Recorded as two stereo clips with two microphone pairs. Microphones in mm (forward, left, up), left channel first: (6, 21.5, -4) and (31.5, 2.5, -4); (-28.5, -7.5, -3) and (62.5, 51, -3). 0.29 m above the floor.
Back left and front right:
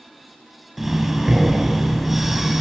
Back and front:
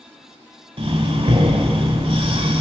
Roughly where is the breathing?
Ahead left.